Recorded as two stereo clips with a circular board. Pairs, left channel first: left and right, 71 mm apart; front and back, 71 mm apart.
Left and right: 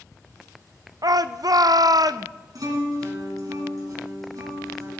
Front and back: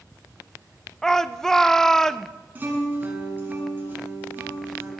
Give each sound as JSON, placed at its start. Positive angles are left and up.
{"t": 1.0, "sound": "a shout", "azimuth_deg": -80, "distance_m": 0.6}
{"t": 2.5, "sound": "a guitar", "azimuth_deg": -120, "distance_m": 3.5}